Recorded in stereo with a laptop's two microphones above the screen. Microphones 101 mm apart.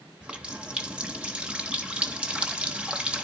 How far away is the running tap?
About 0.8 m.